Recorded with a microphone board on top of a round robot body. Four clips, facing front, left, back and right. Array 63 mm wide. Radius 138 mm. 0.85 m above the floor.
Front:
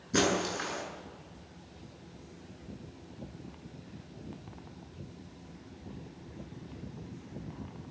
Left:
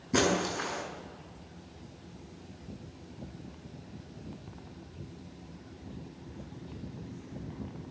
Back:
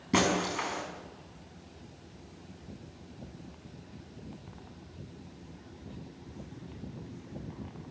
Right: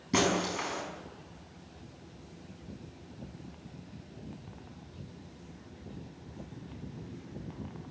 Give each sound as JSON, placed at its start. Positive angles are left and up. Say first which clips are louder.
{"t": 0.1, "sound": "breaking glass", "louder": "left 1 dB, back 1 dB", "azimuth_deg": -160, "distance_m": 5.5}